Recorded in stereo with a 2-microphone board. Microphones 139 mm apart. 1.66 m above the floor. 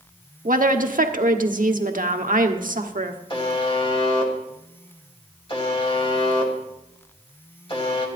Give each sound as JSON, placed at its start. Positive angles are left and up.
{"t": 0.5, "sound": "a woman speaking", "side_deg": -75, "distance_m": 1.1}
{"t": 3.3, "sound": "a buzzer", "side_deg": 35, "distance_m": 2.0}